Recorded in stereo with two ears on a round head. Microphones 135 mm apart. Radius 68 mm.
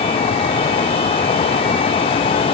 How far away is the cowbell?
I don't hear a cowbell.